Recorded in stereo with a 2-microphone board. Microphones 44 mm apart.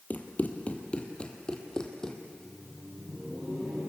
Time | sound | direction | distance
0.1 | running footsteps | 40° left (ahead or behind) | 2 m
2.2 | laughter | 25° right (ahead or behind) | 9 m